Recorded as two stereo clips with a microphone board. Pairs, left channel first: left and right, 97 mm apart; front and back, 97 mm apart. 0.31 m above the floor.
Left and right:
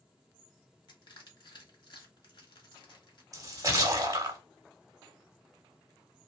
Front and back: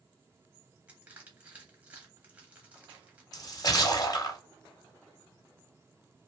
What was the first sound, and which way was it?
Crushing, 110° left.